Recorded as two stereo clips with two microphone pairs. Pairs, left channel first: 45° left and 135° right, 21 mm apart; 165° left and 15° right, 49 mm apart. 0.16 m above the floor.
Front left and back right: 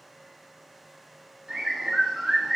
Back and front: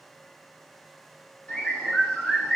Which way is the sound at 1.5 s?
125° right.